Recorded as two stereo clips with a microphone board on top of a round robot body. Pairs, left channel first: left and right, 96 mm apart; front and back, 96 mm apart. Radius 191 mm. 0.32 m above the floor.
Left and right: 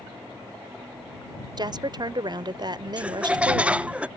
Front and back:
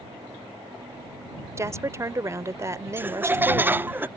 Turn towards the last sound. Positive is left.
turn(degrees=-145)